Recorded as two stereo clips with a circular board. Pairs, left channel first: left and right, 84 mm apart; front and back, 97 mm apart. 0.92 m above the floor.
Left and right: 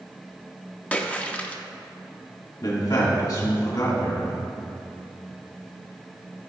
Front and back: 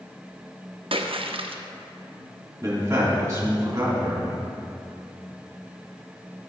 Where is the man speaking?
120° left, 2.5 m.